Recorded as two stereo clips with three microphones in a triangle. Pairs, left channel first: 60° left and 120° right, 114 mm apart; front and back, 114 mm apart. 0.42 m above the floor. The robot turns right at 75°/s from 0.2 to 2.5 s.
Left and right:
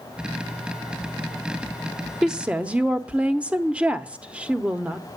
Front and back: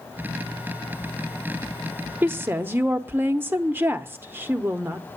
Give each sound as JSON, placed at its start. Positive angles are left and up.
{"t": 2.2, "sound": "a woman speaking", "azimuth_deg": 165, "distance_m": 0.8}